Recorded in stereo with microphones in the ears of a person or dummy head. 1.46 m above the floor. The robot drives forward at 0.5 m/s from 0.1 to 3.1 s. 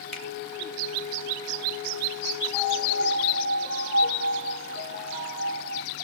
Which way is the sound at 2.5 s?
60° right (ahead or behind).